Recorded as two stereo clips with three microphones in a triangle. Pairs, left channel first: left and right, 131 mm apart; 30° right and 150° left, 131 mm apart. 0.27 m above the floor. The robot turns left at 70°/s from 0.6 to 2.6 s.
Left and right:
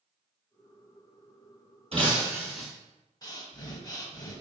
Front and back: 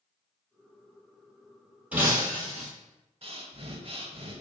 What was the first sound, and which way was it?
Breaking glass, 130° right.